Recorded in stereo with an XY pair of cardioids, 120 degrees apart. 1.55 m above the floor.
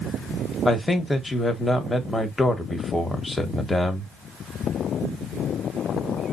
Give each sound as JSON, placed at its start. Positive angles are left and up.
{"t": 0.7, "sound": "a man speaking", "azimuth_deg": 15, "distance_m": 1.4}